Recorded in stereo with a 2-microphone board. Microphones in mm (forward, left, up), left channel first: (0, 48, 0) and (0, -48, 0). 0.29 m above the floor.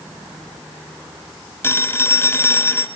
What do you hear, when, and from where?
1.6 s a phone ringing: 25° left (ahead or behind), 1.0 m